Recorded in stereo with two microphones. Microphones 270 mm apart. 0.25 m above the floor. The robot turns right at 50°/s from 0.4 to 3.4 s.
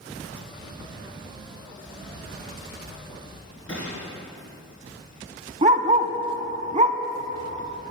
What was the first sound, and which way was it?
A gunshot, 50° left (ahead or behind).